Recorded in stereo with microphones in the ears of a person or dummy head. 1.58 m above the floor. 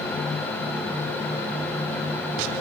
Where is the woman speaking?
No woman speaking in this recording.